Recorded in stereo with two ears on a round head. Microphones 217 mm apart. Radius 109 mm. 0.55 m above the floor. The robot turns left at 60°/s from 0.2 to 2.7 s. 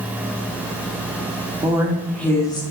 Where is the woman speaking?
155° right, 1.5 m; by 2.6 s 145° left, 1.5 m.